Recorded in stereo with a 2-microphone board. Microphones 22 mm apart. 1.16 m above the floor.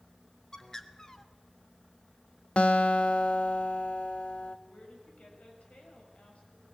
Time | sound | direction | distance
0.5 | a bird | 25° left (ahead or behind) | 1.4 m
2.6 | a guitar | 55° left (ahead or behind) | 1.0 m
4.7 | a woman speaking | 70° left (ahead or behind) | 7.5 m